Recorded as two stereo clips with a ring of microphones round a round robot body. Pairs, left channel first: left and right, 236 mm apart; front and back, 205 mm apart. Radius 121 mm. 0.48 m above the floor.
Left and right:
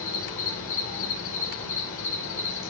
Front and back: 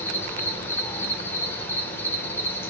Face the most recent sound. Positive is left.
turn(degrees=80)